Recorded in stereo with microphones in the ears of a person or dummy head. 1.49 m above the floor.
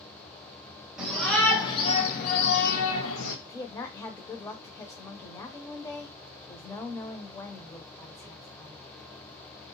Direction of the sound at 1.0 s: 5° right (ahead or behind).